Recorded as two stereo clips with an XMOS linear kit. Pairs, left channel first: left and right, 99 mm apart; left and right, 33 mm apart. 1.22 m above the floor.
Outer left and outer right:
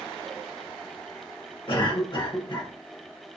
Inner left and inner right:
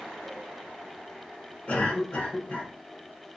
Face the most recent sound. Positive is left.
turn(degrees=50)  # may be behind; listen again after turning